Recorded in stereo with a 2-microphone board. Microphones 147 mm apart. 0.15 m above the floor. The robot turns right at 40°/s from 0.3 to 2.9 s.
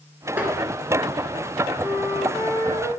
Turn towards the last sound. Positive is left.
turn(degrees=35)